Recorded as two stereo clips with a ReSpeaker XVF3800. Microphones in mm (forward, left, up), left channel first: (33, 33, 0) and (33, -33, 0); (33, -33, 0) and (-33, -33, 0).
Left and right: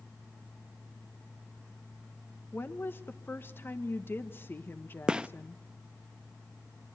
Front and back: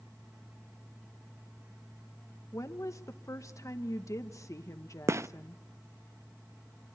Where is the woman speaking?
35° left, 1.5 m.